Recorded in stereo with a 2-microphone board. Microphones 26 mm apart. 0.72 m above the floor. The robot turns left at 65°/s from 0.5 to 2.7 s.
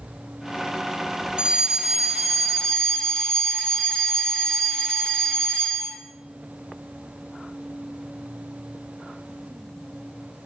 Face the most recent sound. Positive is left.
turn(degrees=145)